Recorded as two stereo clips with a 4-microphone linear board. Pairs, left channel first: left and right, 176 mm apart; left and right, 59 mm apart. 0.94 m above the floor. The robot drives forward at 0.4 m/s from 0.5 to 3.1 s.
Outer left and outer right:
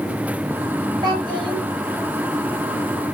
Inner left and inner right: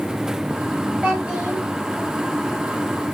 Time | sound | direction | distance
1.0 | a child speaking | 25° right (ahead or behind) | 0.8 m